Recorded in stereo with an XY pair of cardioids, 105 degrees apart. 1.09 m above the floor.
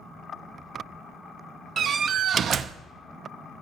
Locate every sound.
1.8 s a door slam: 55° right, 0.7 m